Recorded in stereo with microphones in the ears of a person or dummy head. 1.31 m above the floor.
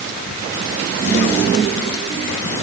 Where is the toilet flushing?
I don't hear a toilet flushing.